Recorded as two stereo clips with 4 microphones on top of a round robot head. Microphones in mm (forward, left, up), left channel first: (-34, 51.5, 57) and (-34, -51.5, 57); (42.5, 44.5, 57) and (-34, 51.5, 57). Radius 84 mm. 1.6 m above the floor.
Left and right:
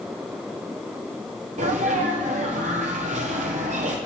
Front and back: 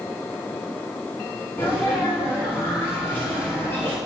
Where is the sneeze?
75° right, 1.1 m.